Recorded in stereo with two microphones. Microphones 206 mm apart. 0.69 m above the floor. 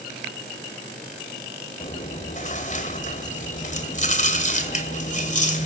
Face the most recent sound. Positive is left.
turn(degrees=40)  # may be behind; listen again after turning